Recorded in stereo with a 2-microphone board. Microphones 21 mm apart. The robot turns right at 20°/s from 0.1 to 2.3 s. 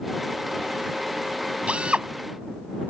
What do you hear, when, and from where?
1.7 s a drill: 70° right (ahead or behind); by 2.1 s 65° right (ahead or behind)